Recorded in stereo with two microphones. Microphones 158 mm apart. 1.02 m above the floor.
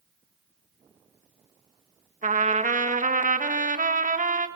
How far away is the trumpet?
About 1.6 m.